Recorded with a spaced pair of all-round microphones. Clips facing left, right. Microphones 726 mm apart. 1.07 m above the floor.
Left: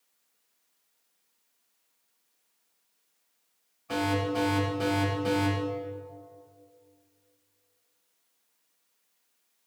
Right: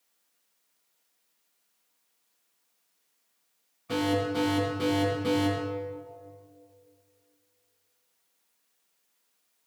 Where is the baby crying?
I don't hear a baby crying.